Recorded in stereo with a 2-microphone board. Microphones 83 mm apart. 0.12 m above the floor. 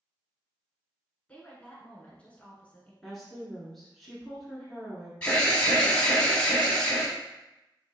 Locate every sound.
1.3 s a woman speaking: 15° left (ahead or behind), 1.1 m
3.0 s a woman speaking: centre (ahead or behind), 1.3 m
5.2 s an alarm: 15° left (ahead or behind), 1.4 m